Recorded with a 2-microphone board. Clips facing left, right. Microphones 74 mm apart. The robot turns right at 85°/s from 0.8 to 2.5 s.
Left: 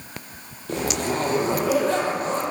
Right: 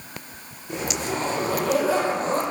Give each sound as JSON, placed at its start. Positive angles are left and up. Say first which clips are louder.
{"t": 0.7, "sound": "a zipper", "louder": "left 3 dB", "azimuth_deg": 95, "distance_m": 1.9}